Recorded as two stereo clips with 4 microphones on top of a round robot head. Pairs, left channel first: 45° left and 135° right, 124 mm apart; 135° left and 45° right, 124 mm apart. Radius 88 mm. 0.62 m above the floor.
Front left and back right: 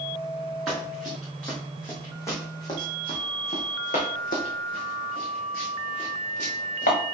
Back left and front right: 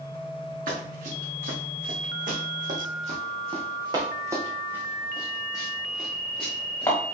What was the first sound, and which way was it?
Running footsteps, 45° right.